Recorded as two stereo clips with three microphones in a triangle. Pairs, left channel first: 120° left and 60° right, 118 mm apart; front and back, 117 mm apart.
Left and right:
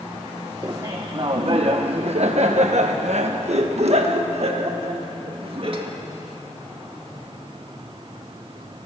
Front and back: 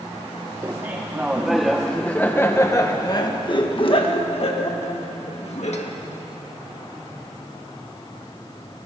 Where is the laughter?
115° right, 1.3 m; by 5.9 s 20° right, 2.5 m.